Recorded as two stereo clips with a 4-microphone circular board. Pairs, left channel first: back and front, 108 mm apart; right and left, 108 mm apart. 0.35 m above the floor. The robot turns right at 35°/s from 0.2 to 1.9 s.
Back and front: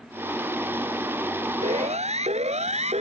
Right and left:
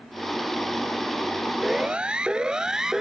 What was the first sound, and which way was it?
A siren, straight ahead.